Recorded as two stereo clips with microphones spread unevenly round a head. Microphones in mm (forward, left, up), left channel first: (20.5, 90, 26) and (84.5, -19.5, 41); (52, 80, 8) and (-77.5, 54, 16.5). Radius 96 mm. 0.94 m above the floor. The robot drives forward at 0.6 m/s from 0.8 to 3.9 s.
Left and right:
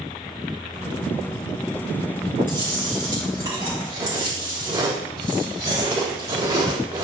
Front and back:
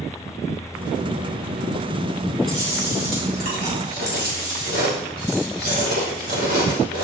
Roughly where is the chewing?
Behind right.